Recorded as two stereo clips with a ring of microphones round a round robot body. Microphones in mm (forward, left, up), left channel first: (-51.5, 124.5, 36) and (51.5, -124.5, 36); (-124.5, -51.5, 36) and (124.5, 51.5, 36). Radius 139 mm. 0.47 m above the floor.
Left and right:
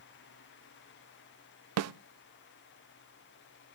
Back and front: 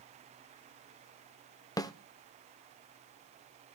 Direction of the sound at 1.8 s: 80° right.